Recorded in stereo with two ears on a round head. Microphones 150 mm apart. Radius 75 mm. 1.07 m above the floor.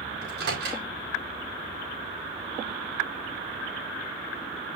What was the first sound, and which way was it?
A microwave, 70° right (ahead or behind).